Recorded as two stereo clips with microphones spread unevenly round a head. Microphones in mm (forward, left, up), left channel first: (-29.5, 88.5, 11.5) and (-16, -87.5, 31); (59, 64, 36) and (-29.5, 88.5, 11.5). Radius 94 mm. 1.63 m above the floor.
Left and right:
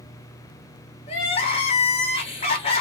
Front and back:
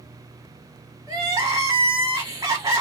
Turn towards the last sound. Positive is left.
turn(degrees=130)